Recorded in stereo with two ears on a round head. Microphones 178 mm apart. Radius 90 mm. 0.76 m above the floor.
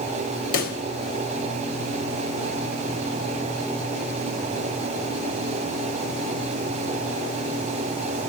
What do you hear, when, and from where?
0.5 s a pop: 45° left (ahead or behind), 1.1 m